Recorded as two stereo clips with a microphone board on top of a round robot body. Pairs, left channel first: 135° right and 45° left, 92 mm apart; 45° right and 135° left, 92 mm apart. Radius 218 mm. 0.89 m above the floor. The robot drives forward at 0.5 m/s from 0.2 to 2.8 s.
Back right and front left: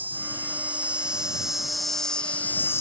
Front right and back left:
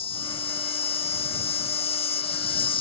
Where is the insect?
25° right; by 2.8 s 70° right.